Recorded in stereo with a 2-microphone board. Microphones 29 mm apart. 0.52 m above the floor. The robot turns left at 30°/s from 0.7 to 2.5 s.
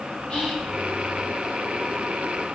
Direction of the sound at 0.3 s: 40° left (ahead or behind).